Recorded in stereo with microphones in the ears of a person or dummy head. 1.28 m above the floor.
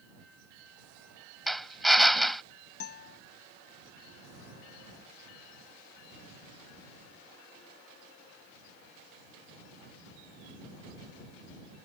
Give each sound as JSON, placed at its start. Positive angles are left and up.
{"t": 1.5, "sound": "a drill", "side_deg": 5}
{"t": 2.8, "sound": "a guitar", "side_deg": 50}